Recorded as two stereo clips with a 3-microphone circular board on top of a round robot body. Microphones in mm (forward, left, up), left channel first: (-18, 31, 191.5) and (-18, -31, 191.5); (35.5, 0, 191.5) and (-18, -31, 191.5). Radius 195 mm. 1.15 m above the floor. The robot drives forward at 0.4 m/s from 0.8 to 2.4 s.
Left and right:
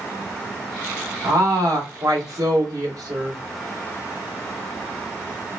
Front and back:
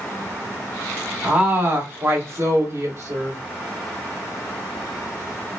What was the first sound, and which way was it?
A woman speaking, 85° right.